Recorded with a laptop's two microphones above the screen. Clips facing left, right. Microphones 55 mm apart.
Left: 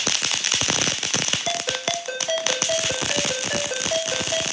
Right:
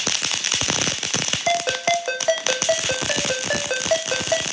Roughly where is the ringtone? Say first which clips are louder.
Right 11 dB; right.